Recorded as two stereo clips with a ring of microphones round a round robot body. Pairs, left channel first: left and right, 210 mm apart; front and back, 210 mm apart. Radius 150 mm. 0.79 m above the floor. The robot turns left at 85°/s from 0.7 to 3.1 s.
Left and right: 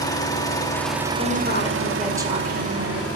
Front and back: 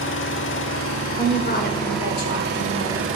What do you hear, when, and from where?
0.0 s an engine running: 15° left, 1.5 m; by 3.2 s 175° left, 1.5 m
1.1 s a woman speaking: 75° left, 2.5 m; by 3.1 s 90° right, 2.5 m